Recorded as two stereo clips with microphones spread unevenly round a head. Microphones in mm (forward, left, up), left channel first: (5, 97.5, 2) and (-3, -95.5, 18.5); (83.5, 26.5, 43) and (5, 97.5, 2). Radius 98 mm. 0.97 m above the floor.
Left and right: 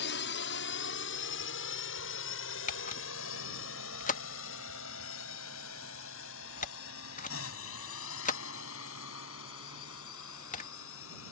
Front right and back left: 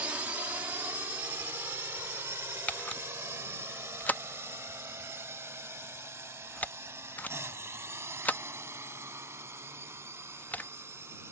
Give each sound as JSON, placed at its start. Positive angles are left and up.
{"t": 0.0, "sound": "a drone", "azimuth_deg": 70}
{"t": 2.7, "sound": "a camera shutter", "azimuth_deg": 35}